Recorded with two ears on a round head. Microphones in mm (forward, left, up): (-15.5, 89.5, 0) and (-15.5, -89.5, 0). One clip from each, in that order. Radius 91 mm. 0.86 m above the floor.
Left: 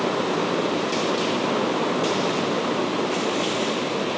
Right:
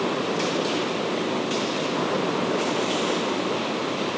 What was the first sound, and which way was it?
Only background noise.